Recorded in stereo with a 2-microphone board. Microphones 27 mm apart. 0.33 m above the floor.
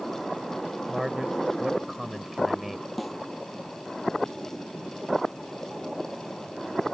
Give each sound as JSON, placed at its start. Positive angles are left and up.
{"t": 0.9, "sound": "a man speaking", "side_deg": -15}
{"t": 3.0, "sound": "a snare drum", "side_deg": -5}